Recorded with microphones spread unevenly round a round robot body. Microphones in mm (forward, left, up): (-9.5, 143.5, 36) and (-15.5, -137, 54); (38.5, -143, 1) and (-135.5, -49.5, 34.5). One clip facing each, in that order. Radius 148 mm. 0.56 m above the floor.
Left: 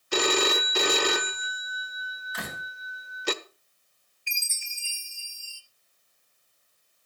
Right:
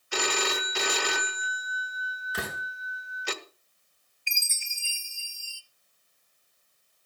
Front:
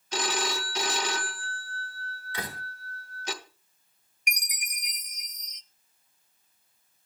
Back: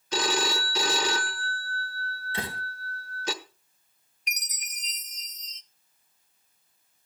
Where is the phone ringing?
135° left, 1.1 m.